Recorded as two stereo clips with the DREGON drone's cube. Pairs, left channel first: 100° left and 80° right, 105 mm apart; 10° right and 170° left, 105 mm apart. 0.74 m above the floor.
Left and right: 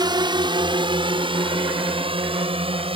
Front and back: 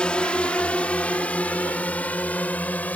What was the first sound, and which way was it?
A drone, 85° right.